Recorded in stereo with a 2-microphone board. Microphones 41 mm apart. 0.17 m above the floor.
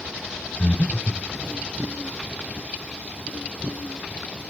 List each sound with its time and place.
0.6 s breathing: 35° left (ahead or behind), 1.2 m